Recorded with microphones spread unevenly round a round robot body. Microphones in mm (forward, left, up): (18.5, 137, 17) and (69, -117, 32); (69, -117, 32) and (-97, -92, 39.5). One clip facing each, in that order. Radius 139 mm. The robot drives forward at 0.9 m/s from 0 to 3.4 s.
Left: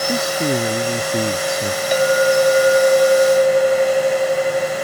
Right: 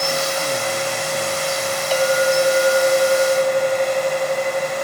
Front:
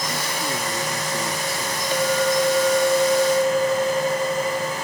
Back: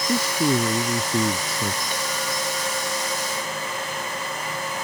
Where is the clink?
25° left; by 4.8 s 40° left.